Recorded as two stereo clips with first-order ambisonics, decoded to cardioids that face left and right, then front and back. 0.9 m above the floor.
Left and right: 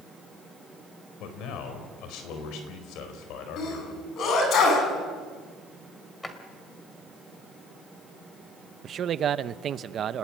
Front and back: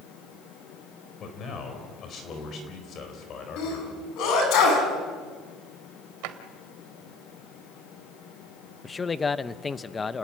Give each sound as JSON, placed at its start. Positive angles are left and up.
{"t": 1.2, "sound": "a man speaking", "azimuth_deg": 55, "distance_m": 4.5}
{"t": 3.6, "sound": "a sneeze", "azimuth_deg": 40, "distance_m": 8.0}
{"t": 6.2, "sound": "a drawer", "azimuth_deg": 170, "distance_m": 1.9}
{"t": 8.8, "sound": "a man speaking", "azimuth_deg": -60, "distance_m": 0.7}